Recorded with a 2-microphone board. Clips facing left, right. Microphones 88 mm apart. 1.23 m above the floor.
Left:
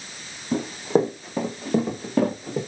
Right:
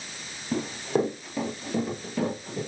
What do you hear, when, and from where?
0.5 s running footsteps: 15° left (ahead or behind), 3 m; by 2.6 s 55° left (ahead or behind), 4 m